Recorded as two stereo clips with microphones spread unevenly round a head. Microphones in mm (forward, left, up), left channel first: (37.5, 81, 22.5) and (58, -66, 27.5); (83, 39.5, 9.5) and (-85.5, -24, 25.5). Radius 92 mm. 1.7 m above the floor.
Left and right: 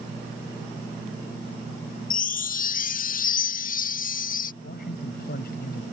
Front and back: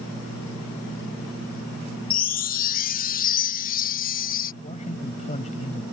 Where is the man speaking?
75° left.